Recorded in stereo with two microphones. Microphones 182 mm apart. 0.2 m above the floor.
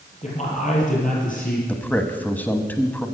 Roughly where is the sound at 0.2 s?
Left.